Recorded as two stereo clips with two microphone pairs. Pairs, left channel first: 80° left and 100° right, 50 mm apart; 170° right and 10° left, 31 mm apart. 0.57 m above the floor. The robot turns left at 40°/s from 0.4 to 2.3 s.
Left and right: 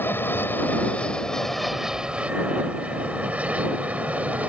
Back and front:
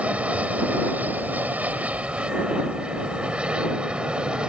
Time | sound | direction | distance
0.0 | an aircraft | 45° left | ?